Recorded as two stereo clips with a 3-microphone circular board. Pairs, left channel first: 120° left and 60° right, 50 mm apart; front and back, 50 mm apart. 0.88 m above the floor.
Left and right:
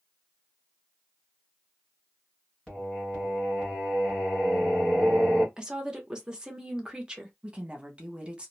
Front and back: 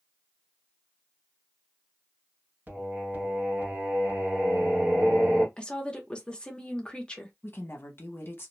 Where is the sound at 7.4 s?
Straight ahead, 0.8 m.